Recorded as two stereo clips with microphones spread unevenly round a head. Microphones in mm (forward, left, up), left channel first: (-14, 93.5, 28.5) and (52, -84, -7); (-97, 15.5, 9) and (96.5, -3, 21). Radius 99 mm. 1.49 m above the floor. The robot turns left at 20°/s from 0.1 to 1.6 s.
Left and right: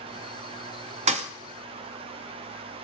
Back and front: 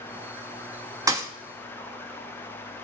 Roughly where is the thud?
Ahead right.